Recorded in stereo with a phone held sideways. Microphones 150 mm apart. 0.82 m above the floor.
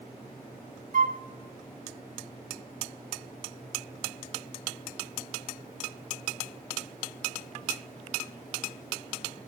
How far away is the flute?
About 0.8 m.